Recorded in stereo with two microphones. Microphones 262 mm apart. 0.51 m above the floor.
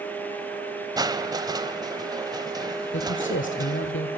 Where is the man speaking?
50° left (ahead or behind), 1.5 m.